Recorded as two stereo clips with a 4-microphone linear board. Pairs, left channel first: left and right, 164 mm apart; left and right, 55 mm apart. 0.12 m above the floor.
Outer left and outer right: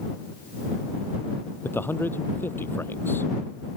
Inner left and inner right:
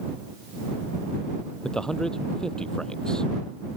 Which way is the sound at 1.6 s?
15° left (ahead or behind).